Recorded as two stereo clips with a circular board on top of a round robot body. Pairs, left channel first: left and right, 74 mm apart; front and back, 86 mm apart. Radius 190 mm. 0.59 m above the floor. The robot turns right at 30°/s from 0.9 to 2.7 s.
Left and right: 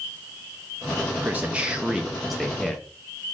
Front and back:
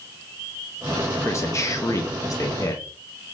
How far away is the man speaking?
About 0.8 m.